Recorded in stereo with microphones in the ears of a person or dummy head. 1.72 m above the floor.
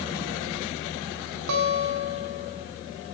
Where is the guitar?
65° right (ahead or behind), 2.5 m.